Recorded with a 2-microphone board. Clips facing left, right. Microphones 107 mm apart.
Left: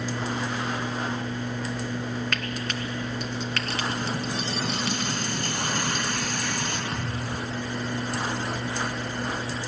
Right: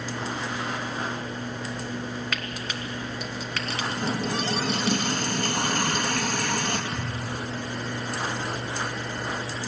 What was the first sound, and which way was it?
Frying, 5° right (ahead or behind).